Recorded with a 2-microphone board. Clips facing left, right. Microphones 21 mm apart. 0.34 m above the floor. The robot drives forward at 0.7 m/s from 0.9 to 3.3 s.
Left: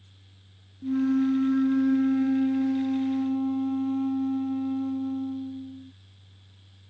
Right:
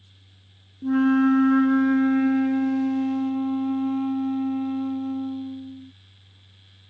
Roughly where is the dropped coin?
No dropped coin in this recording.